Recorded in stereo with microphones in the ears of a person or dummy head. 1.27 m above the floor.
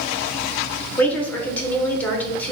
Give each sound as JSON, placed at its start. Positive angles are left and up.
{"t": 1.0, "sound": "a woman speaking", "side_deg": 10, "distance_m": 1.1}